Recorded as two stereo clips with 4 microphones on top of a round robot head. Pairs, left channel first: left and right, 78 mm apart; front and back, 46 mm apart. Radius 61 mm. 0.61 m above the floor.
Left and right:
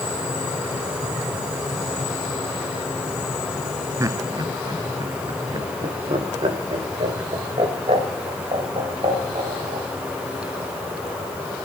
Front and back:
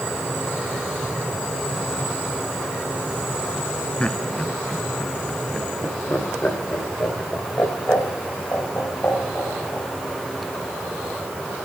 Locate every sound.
4.0 s laughter: 60° right, 0.8 m